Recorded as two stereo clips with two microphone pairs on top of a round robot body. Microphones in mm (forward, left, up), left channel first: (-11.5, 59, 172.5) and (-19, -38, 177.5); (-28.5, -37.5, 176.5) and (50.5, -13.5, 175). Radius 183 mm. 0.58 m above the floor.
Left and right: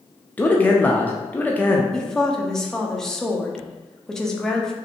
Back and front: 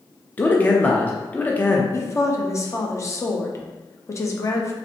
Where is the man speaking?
140° left, 0.6 m.